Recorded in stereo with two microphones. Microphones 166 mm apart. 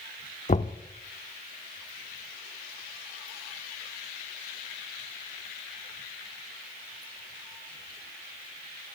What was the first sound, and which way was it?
Knocking, 45° left (ahead or behind).